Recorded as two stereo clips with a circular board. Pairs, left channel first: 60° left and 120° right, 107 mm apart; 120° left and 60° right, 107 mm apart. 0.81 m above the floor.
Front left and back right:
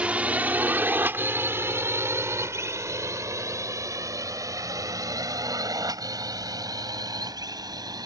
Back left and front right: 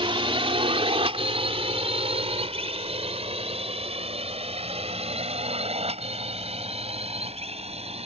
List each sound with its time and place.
0.0 s a drone: 45° right; by 8.1 s 70° right